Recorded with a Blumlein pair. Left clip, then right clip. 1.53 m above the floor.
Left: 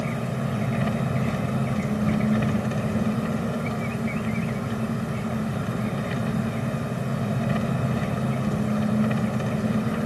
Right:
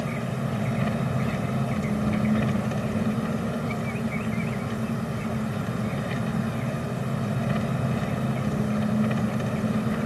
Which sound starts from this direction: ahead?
An engine running, at 0.0 s.